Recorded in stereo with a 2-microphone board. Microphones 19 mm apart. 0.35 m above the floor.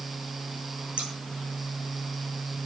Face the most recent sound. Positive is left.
turn(degrees=-65)  # may be behind; listen again after turning